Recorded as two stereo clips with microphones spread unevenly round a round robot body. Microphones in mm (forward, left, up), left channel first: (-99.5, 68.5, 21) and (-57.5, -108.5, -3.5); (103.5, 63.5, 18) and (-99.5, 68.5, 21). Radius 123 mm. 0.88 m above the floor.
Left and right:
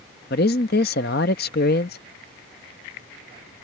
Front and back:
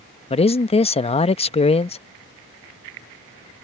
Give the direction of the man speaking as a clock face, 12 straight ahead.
10 o'clock.